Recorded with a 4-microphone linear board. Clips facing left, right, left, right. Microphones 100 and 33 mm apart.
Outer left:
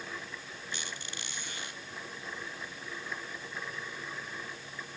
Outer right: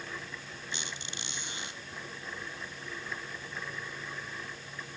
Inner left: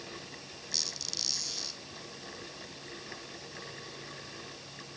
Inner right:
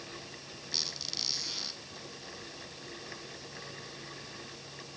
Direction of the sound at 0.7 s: 20° right (ahead or behind).